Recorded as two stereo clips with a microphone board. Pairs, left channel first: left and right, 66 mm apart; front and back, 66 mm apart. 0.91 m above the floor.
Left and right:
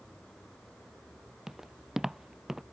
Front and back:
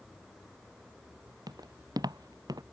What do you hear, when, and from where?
1.5 s footsteps: 175° right